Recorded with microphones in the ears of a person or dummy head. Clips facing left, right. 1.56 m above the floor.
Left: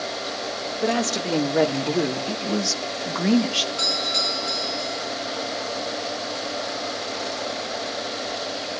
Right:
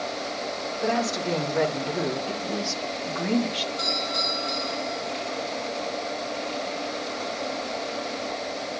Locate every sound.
0.8 s a woman speaking: 40° left (ahead or behind), 3.5 m; by 3.7 s 85° left, 2.0 m
3.8 s a doorbell: 45° left (ahead or behind), 9.5 m